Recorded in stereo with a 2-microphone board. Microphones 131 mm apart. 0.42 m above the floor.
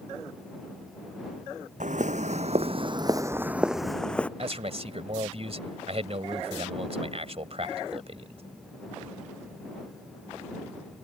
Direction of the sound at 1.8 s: 70° right (ahead or behind).